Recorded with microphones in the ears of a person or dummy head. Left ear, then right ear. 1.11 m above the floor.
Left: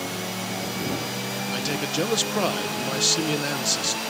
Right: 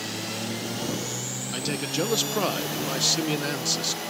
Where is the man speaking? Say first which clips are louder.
Left 1 dB; centre (ahead or behind).